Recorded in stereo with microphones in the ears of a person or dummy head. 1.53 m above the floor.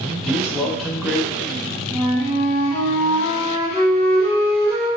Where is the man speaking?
Centre (ahead or behind), 0.6 m.